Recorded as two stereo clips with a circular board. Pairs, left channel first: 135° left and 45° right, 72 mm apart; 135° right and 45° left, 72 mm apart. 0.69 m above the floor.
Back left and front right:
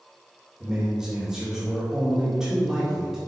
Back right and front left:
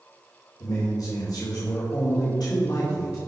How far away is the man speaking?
About 2.5 m.